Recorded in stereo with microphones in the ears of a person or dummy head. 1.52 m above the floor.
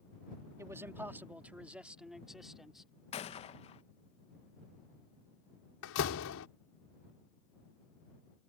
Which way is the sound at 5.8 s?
75° left (ahead or behind).